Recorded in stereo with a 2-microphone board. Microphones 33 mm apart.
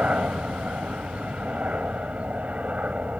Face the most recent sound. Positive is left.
turn(degrees=-40)  # may be behind; listen again after turning